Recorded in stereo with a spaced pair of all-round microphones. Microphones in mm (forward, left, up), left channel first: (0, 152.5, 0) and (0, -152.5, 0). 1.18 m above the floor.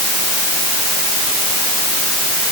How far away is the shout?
No shout in this recording.